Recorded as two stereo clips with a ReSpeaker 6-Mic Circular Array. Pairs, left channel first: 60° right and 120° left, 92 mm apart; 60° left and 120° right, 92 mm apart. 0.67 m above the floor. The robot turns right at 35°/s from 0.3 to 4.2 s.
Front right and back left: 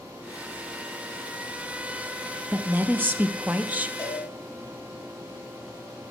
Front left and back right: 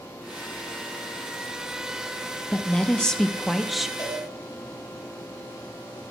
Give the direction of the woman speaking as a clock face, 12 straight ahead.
8 o'clock.